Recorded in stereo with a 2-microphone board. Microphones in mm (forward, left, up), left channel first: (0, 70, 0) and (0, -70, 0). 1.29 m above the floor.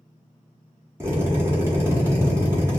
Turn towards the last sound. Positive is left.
turn(degrees=-20)  # may be behind; listen again after turning